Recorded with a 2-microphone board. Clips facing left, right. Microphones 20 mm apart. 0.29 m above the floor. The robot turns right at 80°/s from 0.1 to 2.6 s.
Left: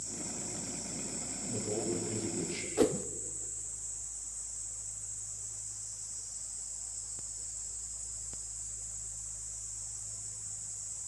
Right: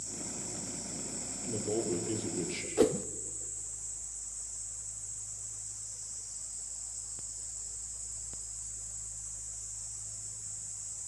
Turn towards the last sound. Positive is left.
turn(degrees=-10)  # may be behind; listen again after turning